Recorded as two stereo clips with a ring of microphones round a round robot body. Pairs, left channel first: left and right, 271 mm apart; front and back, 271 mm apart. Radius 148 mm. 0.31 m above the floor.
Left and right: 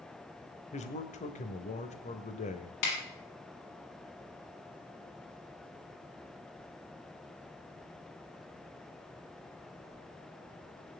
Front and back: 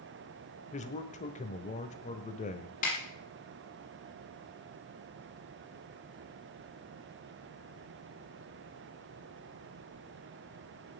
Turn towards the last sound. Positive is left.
turn(degrees=65)